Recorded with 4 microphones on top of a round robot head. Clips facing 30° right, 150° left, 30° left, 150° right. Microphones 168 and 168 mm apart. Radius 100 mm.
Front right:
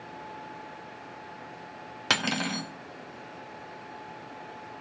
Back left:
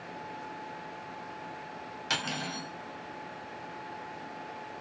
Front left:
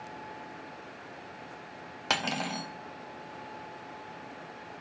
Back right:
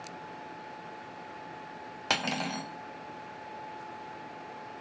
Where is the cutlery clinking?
60° right, 1.1 m.